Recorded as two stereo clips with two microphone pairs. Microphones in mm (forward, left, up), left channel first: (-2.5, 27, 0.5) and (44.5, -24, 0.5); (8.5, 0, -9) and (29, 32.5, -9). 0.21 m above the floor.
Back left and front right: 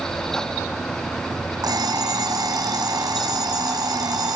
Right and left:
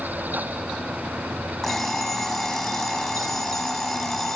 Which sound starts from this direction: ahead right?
An alarm clock, at 1.6 s.